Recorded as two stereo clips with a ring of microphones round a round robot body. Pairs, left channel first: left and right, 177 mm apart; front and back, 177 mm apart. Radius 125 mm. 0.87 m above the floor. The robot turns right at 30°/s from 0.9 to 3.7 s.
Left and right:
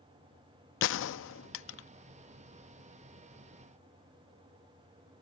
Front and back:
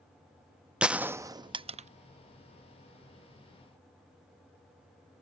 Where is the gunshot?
95° left; by 1.9 s 125° left.